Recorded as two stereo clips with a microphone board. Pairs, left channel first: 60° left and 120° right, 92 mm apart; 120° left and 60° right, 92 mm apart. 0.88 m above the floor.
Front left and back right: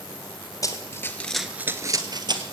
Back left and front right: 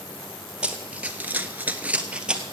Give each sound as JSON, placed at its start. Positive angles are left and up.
{"t": 0.6, "sound": "running footsteps", "azimuth_deg": 15, "distance_m": 1.4}